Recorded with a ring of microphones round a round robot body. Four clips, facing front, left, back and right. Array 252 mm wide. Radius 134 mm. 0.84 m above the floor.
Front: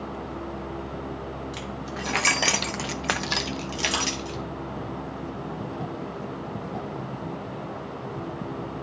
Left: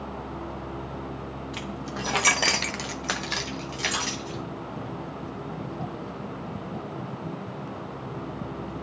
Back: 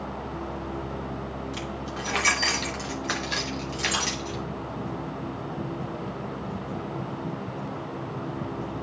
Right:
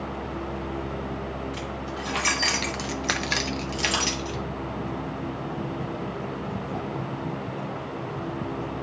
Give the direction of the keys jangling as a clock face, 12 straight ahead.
9 o'clock.